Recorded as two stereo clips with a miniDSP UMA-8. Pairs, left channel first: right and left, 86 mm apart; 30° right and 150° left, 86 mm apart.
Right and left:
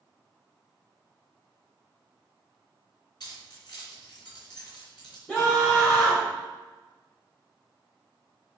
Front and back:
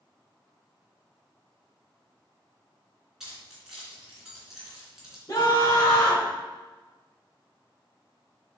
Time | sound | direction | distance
3.2 | keys jangling | 125° right | 3.5 m
5.3 | a scream | 15° right | 1.7 m